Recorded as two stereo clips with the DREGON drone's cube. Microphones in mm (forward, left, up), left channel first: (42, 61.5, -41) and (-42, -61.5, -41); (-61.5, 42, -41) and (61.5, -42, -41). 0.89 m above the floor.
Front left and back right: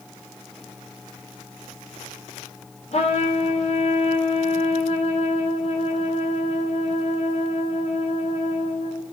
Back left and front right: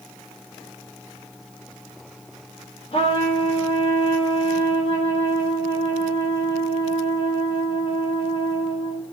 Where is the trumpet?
95° left, 1.3 m.